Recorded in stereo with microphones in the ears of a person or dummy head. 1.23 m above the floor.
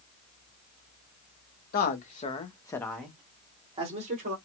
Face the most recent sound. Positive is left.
turn(degrees=-45)  # may be behind; listen again after turning